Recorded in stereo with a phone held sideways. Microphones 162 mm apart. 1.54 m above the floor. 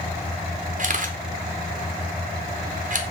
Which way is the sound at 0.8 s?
55° right (ahead or behind).